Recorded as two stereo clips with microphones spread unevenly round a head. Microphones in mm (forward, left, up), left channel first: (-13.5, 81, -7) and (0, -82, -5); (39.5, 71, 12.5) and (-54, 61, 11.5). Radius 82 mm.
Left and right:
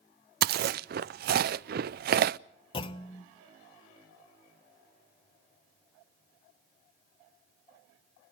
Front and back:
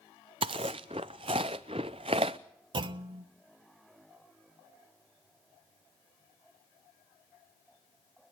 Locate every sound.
0.4 s chewing: 115° right, 0.5 m
2.7 s a clunk: 155° left, 1.1 m